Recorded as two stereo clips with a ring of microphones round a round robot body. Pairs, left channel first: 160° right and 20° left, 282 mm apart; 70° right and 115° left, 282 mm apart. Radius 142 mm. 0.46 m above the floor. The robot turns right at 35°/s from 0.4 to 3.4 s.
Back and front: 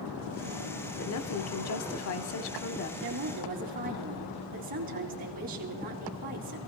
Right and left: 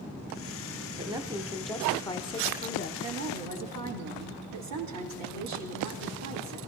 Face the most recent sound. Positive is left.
turn(degrees=85)